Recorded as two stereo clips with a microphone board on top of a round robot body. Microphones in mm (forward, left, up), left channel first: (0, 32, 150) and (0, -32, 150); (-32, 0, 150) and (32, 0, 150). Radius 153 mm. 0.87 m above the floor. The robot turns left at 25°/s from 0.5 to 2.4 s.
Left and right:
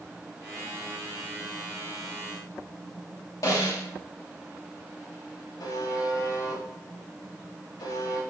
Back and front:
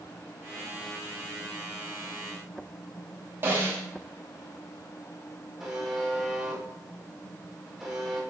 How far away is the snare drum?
About 3 m.